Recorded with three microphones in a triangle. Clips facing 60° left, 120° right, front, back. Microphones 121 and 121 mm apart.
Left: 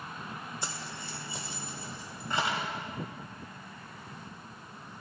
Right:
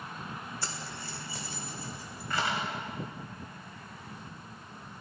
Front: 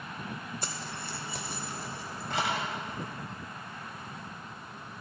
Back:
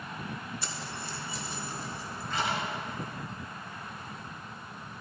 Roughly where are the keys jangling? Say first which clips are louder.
Even, even; ahead.